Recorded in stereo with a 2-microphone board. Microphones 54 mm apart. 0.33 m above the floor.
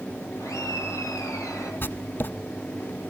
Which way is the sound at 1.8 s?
40° left (ahead or behind).